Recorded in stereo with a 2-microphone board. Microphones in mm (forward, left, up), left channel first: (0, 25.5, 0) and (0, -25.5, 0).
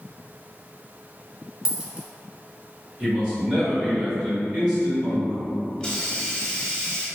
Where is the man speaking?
25° right (ahead or behind), 1.8 m.